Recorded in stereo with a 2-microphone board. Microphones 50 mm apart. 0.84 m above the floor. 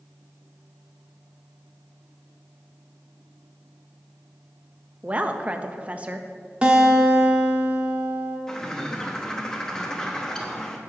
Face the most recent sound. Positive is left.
turn(degrees=15)  # may be behind; listen again after turning